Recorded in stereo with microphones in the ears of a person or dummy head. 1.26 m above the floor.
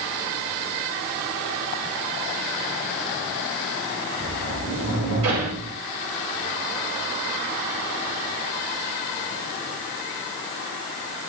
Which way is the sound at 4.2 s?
75° right (ahead or behind).